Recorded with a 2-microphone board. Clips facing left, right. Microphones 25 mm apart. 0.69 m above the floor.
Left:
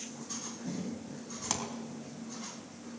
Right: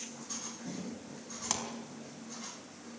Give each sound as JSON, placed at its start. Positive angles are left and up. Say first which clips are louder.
{"t": 1.5, "sound": "a pop", "louder": "left 1 dB", "side_deg": 0, "distance_m": 4.5}